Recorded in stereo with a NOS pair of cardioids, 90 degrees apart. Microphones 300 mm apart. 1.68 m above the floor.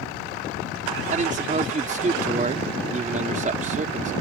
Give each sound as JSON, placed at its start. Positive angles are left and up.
{"t": 1.1, "sound": "a man speaking", "azimuth_deg": -25}